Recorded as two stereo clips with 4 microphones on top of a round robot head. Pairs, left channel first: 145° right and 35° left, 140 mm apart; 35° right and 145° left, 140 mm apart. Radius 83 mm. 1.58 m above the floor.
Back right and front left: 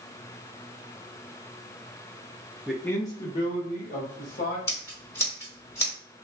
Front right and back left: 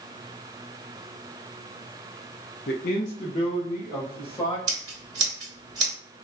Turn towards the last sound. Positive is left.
turn(degrees=165)